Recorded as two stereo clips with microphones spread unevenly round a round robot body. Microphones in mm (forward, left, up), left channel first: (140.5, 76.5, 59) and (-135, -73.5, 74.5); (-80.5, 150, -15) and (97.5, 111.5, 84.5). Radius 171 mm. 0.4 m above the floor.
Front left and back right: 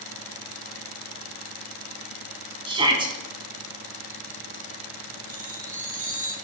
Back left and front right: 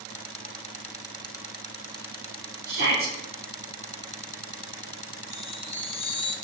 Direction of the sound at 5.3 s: 145° left.